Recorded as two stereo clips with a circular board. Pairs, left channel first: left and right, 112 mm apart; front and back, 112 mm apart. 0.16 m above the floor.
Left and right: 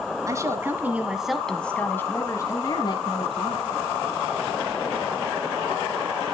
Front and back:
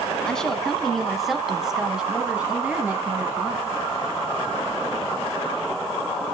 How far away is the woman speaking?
About 1.1 m.